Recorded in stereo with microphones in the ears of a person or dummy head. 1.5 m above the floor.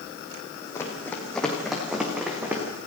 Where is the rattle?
I don't hear a rattle.